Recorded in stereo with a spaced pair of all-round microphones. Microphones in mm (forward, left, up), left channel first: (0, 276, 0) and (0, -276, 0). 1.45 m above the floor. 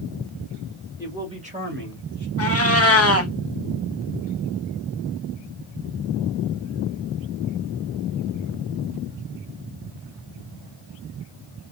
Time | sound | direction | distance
1.0 | a man speaking | 5° right (ahead or behind) | 1.8 m
2.4 | a cat meowing | 25° left (ahead or behind) | 0.8 m